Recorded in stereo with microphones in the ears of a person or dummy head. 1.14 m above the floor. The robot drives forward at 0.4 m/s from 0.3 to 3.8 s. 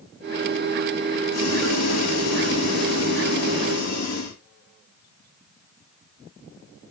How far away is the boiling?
About 2.5 m.